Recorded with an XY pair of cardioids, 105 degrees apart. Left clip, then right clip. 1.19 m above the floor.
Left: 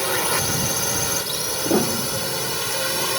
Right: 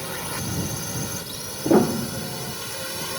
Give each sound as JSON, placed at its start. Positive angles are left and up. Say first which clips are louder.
{"t": 0.0, "sound": "a drone", "louder": "left 9 dB", "azimuth_deg": 60}
{"t": 1.6, "sound": "a piano", "louder": "right 4 dB", "azimuth_deg": -25}